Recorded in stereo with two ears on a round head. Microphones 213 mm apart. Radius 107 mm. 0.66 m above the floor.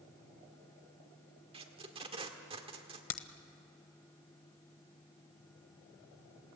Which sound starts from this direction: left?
A crack, at 3.1 s.